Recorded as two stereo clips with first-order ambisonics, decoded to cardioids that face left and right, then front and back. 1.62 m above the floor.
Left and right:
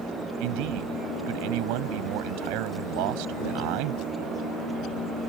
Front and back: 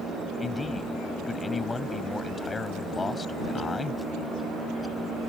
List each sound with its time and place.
0.4 s a man speaking: 80° right